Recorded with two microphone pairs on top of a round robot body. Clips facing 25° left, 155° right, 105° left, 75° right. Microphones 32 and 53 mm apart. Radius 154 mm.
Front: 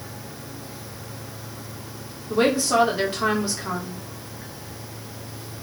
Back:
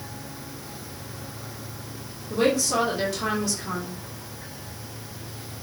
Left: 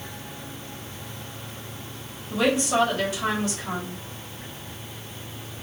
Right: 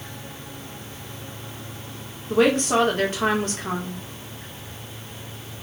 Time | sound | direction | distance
2.3 | a woman speaking | 30° right | 2.5 m